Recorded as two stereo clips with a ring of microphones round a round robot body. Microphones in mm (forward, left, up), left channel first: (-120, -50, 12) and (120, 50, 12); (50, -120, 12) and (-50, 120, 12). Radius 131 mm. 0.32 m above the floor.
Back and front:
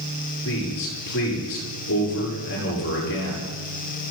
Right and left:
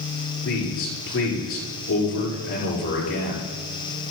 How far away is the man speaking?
About 9 m.